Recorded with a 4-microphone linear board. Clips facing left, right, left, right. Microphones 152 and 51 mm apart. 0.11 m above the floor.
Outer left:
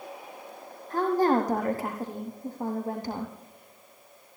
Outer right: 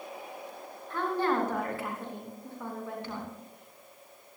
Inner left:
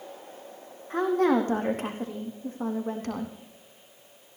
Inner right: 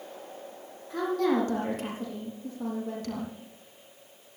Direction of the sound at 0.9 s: 40° left (ahead or behind).